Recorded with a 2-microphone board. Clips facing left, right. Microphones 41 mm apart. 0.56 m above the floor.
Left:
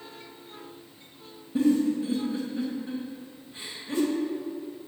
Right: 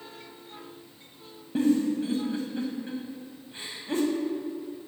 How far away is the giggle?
About 1.7 m.